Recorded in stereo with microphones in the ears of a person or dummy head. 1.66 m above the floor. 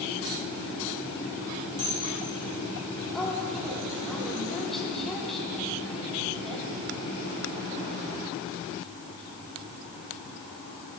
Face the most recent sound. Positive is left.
turn(degrees=0)  # may be behind; listen again after turning